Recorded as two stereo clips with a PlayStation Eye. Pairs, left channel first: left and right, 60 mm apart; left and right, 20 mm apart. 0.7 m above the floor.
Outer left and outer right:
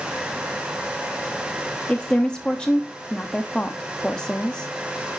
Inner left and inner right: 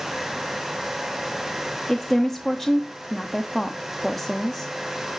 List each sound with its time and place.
1.9 s a woman speaking: 15° left (ahead or behind), 0.8 m